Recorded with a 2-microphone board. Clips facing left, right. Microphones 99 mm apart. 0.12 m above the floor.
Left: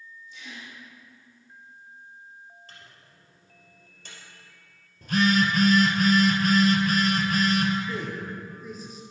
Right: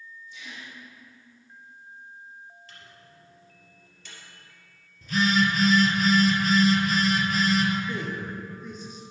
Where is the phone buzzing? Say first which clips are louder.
Left 1 dB; 55° left (ahead or behind), 0.9 m.